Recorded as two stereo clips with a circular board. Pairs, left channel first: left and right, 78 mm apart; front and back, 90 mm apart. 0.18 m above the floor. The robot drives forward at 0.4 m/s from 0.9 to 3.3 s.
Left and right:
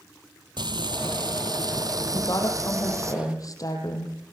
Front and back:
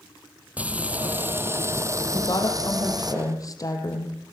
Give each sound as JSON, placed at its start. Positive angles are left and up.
{"t": 0.6, "sound": "frying", "azimuth_deg": -105, "distance_m": 1.1}
{"t": 2.1, "sound": "a woman speaking", "azimuth_deg": 45, "distance_m": 6.0}